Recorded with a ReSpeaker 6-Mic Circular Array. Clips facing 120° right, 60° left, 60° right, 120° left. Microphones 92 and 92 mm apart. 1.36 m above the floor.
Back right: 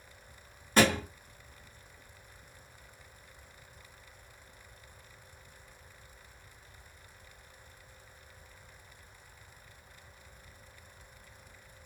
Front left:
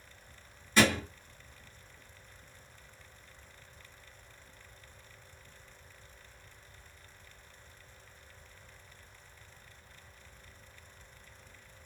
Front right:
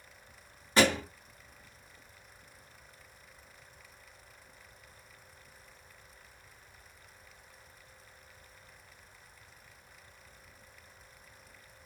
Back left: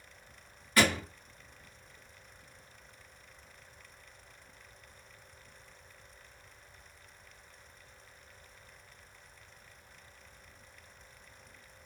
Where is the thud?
115° right, 1.5 m.